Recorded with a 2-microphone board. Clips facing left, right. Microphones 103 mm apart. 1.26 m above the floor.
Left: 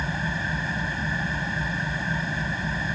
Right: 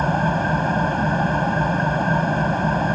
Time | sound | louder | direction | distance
0.0 | an engine running | right 10 dB | 50° right (ahead or behind) | ?